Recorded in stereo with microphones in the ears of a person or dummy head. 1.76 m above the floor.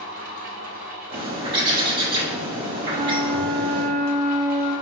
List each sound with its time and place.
0.0 s a fan: 50° right (ahead or behind), 0.8 m
1.1 s a bird: 30° right (ahead or behind), 1.0 m
2.9 s a flute: 5° left (ahead or behind), 1.5 m